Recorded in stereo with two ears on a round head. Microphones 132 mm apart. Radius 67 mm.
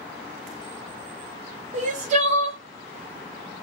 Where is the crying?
50° right (ahead or behind), 1.5 m.